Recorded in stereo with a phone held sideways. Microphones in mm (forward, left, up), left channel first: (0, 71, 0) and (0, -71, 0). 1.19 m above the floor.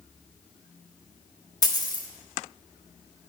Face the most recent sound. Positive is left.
turn(degrees=25)  # may be behind; listen again after turning